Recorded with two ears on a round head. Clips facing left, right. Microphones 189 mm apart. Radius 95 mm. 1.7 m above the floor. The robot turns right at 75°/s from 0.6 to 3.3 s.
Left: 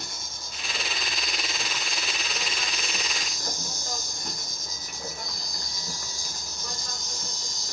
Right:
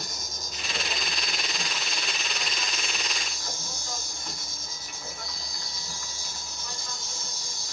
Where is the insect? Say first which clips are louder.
Right 2 dB; 100° right, 0.9 m; by 7.7 s 105° left, 0.9 m.